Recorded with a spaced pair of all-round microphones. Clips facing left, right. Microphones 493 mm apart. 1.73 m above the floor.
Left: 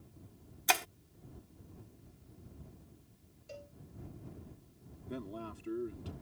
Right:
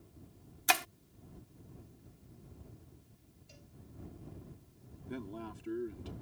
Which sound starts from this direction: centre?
A man speaking, at 5.1 s.